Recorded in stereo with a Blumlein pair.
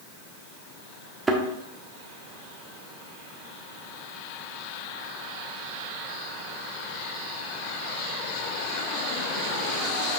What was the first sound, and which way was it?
A thud, 10° right.